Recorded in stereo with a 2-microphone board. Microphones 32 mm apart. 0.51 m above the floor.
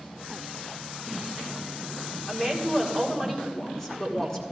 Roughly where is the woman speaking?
Centre.